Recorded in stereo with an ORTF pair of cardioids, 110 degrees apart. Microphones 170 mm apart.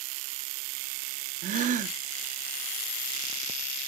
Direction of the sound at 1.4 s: 50° right.